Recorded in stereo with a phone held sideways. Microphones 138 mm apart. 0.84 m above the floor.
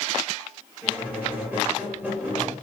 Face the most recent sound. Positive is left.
turn(degrees=-15)  # may be behind; listen again after turning